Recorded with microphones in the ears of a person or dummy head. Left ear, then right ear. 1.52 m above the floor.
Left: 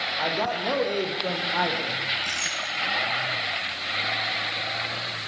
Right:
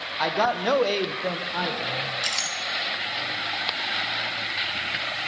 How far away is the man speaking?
About 1.4 m.